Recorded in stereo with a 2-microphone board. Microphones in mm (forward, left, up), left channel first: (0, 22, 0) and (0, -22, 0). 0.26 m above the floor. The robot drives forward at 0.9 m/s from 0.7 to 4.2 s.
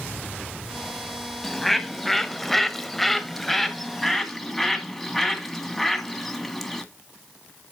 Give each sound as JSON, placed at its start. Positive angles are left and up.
{"t": 1.4, "sound": "a bird", "side_deg": 5, "distance_m": 1.4}